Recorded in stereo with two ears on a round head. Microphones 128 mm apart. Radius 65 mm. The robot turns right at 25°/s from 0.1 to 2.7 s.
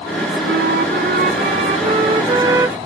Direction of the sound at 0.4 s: 75° right.